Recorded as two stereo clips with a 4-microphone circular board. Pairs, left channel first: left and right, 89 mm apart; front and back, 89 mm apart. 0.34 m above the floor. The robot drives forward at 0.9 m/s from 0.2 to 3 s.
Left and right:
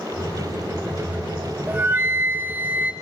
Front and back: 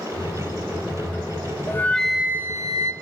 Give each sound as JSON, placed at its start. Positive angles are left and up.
{"t": 1.7, "sound": "a flute", "azimuth_deg": -35, "distance_m": 0.7}